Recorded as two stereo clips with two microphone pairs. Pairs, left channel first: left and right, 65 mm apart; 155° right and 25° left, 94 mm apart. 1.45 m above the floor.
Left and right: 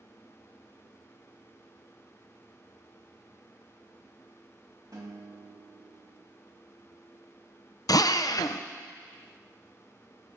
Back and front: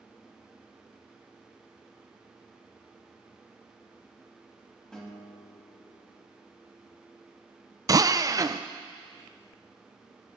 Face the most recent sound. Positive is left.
turn(degrees=70)